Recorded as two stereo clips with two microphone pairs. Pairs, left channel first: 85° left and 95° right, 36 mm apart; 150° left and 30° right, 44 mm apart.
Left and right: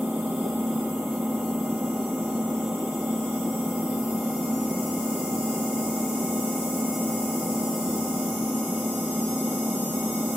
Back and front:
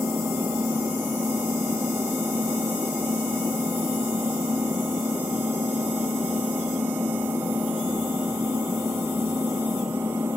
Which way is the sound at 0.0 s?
40° right.